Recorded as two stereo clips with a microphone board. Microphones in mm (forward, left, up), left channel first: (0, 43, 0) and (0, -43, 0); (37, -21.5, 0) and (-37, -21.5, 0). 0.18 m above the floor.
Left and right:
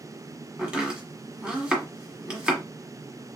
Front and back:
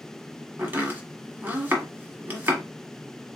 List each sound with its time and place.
0.6 s chopping: 155° right, 1.5 m